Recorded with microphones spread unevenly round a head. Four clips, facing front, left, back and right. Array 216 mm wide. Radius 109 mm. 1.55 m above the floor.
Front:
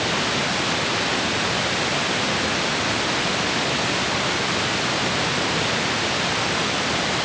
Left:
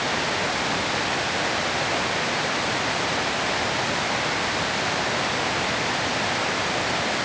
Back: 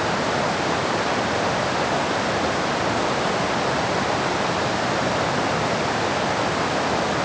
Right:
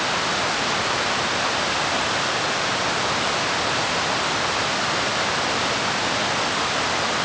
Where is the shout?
No shout in this recording.